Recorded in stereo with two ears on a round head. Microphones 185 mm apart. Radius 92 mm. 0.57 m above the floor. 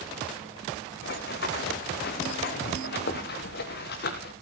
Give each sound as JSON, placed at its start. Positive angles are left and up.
{"t": 1.0, "sound": "running footsteps", "side_deg": 50, "distance_m": 2.5}